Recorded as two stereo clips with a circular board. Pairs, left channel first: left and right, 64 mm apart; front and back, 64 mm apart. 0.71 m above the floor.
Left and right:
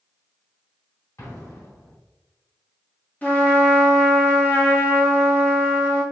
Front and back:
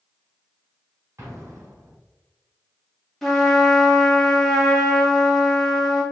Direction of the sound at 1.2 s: 135° left.